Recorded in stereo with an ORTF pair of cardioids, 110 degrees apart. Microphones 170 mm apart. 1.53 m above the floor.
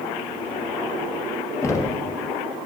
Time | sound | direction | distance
1.6 | knocking | 20° left | 0.9 m